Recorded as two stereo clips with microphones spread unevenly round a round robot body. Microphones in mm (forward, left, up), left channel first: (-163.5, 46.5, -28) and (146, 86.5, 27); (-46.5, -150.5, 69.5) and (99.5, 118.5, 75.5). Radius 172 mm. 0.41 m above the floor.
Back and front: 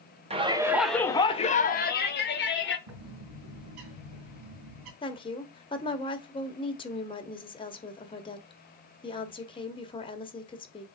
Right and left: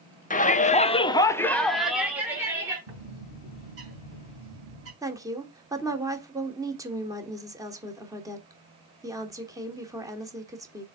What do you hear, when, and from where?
0.3 s a shout: 70° right, 0.9 m; by 2.8 s 140° left, 1.6 m
2.9 s a bird: 15° left, 3.5 m
5.0 s a woman speaking: 135° left, 1.4 m